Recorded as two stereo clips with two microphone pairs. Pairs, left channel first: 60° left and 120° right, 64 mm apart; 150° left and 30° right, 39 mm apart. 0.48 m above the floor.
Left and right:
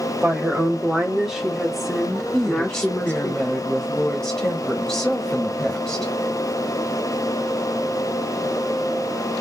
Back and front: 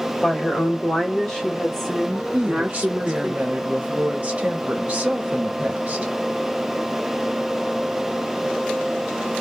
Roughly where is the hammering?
No hammering in this recording.